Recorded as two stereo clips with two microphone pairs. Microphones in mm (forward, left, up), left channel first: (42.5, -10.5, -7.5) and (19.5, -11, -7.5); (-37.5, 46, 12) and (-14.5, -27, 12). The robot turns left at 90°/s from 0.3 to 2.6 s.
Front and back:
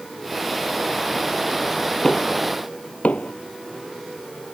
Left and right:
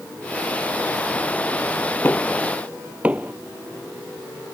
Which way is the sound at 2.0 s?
50° left.